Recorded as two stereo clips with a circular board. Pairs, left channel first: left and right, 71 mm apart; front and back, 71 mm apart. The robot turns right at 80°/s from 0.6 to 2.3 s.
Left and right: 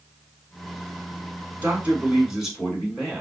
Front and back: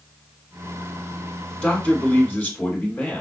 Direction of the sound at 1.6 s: 70° right.